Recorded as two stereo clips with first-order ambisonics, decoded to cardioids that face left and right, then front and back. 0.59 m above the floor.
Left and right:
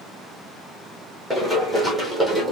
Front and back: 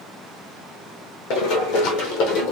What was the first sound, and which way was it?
Running footsteps, straight ahead.